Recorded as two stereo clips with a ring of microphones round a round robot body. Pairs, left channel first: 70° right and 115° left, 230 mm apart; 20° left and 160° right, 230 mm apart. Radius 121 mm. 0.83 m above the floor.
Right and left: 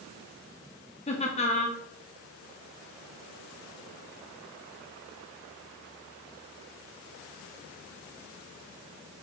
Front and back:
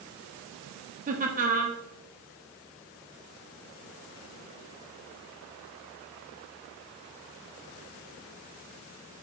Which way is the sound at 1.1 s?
120° right.